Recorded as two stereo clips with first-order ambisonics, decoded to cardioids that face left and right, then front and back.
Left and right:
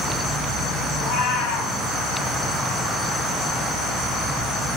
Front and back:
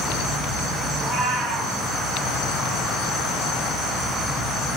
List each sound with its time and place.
0.9 s a cat meowing: 95° left, 4 m